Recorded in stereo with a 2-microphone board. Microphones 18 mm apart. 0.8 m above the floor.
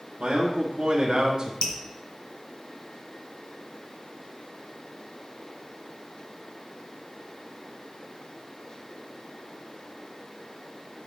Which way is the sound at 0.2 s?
65° right (ahead or behind).